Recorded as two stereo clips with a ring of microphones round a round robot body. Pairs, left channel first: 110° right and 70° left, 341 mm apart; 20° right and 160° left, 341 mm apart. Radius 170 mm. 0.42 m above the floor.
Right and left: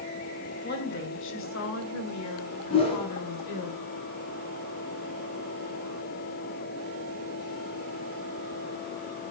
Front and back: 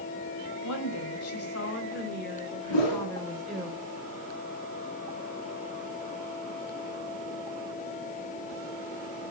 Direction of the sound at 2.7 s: 40° right.